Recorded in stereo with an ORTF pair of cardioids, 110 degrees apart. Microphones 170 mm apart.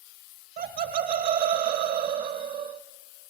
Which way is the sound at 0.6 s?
65° right.